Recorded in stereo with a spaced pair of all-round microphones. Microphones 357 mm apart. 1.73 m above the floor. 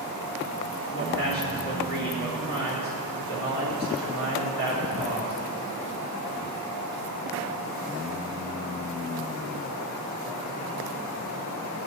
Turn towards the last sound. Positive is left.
turn(degrees=35)  # may be behind; listen again after turning